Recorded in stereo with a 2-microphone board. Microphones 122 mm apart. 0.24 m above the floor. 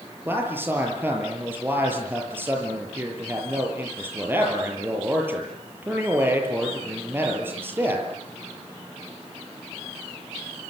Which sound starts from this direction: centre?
A man speaking, at 0.2 s.